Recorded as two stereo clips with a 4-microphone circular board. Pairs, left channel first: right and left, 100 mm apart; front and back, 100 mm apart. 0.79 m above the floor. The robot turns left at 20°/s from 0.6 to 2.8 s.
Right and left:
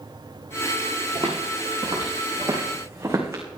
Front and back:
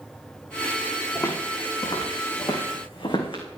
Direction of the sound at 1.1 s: 60° left.